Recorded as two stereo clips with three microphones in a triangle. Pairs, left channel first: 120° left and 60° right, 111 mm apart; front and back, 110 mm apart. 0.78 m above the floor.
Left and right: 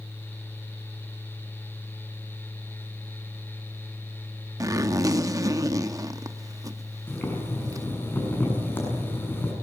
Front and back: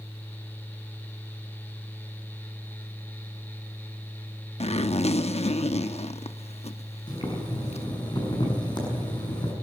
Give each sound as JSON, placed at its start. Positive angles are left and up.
{"t": 4.6, "sound": "a zipper", "azimuth_deg": -5, "distance_m": 0.9}
{"t": 7.1, "sound": "boiling", "azimuth_deg": 45, "distance_m": 7.0}